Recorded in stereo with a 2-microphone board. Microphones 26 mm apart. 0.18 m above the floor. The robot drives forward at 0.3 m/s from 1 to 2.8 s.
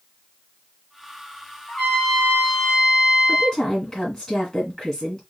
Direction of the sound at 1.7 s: 55° left (ahead or behind).